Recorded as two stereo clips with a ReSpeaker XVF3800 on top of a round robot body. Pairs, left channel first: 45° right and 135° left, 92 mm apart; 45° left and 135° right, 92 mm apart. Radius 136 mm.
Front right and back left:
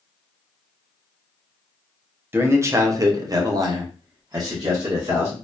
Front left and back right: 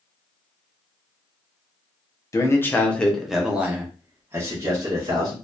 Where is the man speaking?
80° left, 0.9 m; by 5.3 s 175° right, 1.6 m.